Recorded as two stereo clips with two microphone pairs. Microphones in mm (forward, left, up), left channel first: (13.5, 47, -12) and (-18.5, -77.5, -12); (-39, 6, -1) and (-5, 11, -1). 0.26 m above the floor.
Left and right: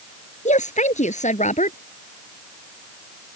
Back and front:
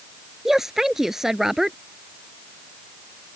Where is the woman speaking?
90° left.